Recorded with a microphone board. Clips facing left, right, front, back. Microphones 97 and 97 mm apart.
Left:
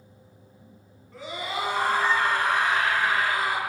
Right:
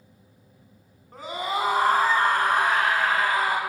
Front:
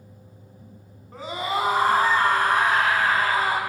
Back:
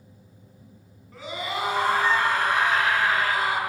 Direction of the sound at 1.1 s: 45° right.